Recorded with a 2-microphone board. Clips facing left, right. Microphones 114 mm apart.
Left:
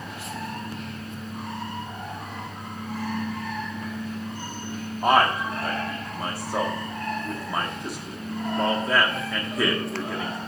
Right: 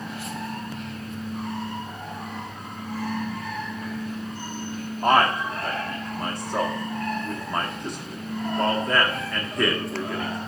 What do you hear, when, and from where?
5.0 s a man speaking: 5° left (ahead or behind), 1.1 m